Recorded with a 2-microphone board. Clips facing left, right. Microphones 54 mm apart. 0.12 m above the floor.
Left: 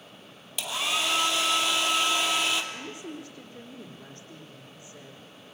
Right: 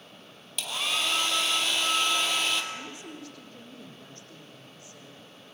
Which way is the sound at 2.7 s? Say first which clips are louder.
Left 2 dB; 15° left (ahead or behind).